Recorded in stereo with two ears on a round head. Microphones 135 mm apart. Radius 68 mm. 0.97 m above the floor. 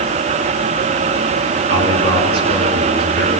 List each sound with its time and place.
1.7 s a man speaking: 80° right, 8 m